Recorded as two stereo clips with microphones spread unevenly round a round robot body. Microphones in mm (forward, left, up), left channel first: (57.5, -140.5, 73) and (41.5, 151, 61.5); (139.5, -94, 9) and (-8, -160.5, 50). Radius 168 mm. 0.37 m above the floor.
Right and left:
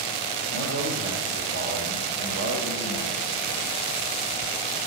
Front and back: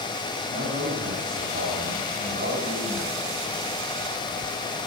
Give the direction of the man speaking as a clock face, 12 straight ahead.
7 o'clock.